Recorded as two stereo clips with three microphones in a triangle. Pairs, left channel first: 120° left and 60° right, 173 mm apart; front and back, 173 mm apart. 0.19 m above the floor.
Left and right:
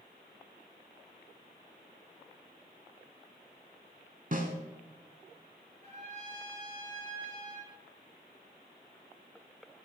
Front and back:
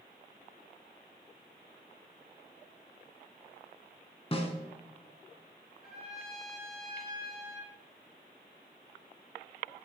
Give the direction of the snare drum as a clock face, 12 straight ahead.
2 o'clock.